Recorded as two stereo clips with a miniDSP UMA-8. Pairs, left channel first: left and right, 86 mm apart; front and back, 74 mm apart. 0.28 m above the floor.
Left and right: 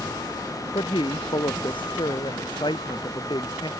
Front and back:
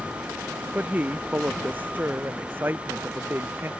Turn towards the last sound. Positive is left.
turn(degrees=120)